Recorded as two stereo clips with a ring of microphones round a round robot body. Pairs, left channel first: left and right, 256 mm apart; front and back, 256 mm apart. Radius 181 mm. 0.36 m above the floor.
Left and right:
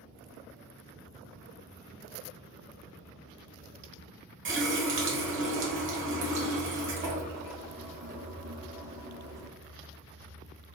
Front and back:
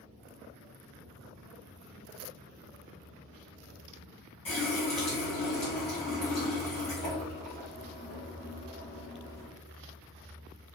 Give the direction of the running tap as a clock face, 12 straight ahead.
2 o'clock.